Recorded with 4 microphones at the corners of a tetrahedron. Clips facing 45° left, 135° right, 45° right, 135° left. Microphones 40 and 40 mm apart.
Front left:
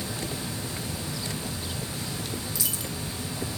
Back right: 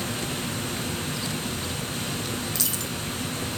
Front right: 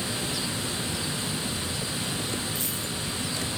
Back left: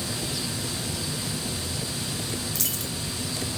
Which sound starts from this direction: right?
Running water, at 0.0 s.